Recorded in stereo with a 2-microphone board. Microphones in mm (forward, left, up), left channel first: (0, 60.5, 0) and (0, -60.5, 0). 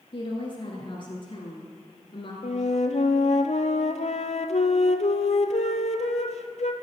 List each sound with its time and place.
0.1 s a woman speaking: 40° left (ahead or behind), 1.4 m
2.4 s a flute: 60° left (ahead or behind), 0.6 m